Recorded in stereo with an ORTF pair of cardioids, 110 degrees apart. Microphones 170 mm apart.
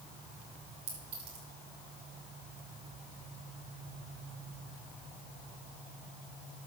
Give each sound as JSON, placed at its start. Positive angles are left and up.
{"t": 0.9, "sound": "a clink", "azimuth_deg": -65, "distance_m": 5.5}